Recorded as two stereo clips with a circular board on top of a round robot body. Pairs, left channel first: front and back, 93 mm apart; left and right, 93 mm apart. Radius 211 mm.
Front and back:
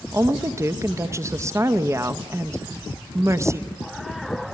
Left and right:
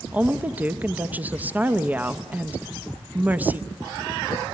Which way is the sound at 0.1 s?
150° right.